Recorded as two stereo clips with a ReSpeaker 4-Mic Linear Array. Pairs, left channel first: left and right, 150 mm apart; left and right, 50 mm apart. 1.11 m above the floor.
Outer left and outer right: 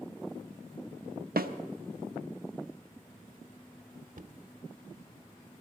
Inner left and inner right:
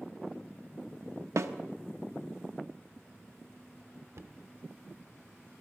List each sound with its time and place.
1.4 s a snare drum: 80° right, 0.7 m
4.2 s knocking: 60° right (ahead or behind), 0.7 m